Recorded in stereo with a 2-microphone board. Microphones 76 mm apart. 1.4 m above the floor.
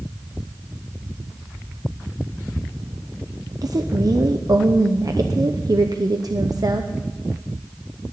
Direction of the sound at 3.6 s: 55° right (ahead or behind).